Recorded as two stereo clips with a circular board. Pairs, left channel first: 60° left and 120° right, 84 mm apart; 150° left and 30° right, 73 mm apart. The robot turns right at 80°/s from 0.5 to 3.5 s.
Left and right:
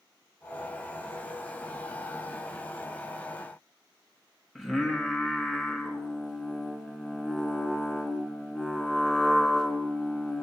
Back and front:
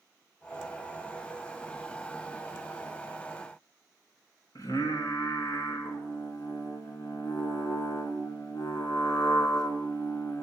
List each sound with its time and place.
4.5 s singing: 155° left, 3 m